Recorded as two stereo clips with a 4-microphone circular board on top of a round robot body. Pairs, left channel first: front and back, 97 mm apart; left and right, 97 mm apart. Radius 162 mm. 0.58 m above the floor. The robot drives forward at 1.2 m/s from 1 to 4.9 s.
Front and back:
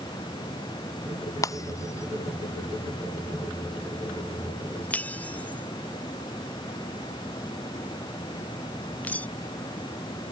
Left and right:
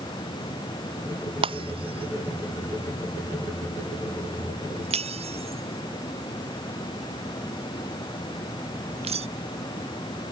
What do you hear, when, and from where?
1.4 s breaking glass: 55° right; by 9.3 s 75° right